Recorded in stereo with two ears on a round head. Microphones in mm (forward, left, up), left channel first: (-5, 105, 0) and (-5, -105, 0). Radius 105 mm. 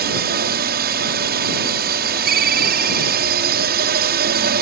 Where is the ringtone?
40° right (ahead or behind).